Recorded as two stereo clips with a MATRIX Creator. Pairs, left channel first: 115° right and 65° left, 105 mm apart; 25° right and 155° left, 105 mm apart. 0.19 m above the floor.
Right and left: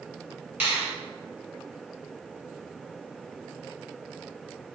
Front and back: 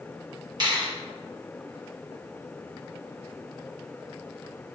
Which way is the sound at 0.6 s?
140° left.